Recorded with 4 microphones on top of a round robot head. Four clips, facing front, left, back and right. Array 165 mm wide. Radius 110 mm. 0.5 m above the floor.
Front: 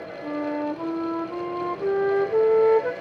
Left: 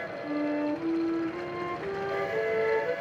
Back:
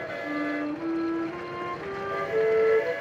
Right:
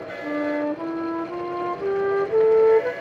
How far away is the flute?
About 1.2 m.